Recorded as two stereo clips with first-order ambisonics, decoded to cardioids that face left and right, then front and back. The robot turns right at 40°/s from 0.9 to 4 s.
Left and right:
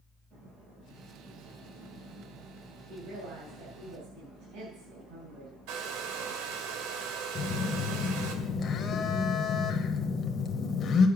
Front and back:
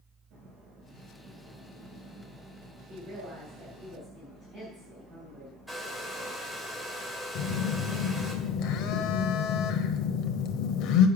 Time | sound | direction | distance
2.9 | a woman speaking | 140° right | 5 m
5.7 | a hair dryer | 90° right | 1.8 m
7.3 | a phone buzzing | 30° left | 1.1 m